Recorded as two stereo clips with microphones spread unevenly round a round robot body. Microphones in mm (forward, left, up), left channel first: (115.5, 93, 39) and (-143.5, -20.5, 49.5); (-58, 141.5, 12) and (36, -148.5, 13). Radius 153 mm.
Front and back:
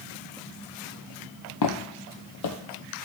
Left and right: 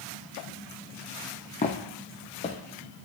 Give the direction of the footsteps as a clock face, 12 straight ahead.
11 o'clock.